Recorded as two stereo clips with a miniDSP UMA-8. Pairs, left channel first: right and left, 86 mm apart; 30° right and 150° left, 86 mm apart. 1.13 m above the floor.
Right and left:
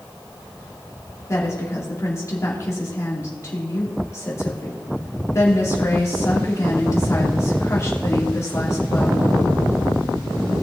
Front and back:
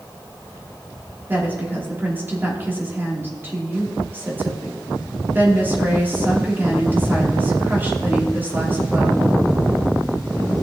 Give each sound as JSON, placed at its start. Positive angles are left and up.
{"t": 1.3, "sound": "a woman speaking", "azimuth_deg": -145, "distance_m": 3.0}